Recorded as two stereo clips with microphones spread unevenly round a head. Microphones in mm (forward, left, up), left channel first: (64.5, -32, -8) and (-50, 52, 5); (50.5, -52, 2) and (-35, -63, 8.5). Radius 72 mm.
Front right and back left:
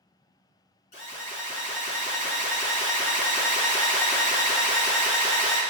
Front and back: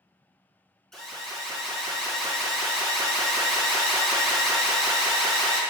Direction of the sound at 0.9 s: 75° right.